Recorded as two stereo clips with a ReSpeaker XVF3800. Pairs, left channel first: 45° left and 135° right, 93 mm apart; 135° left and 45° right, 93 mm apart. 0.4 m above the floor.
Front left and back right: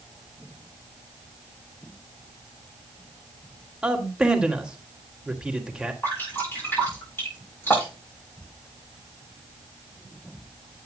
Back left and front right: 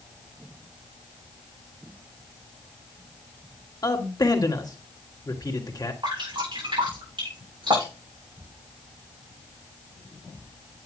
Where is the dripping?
20° right, 7 m.